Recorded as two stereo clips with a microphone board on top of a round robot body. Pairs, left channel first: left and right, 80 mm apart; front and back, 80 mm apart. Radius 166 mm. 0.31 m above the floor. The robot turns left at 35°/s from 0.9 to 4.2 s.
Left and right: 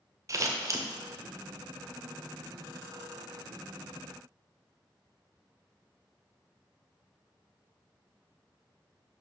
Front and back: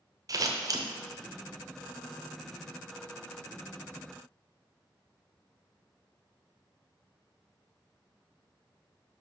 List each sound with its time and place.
0.3 s scissors: 140° right, 0.9 m